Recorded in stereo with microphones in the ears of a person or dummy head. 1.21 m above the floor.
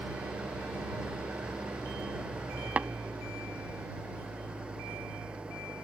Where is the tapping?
10° right (ahead or behind).